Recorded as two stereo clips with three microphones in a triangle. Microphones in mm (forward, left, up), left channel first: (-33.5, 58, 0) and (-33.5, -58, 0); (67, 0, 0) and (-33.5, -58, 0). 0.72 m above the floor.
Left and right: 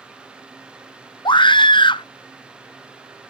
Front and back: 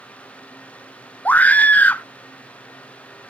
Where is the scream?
100° left, 0.6 m.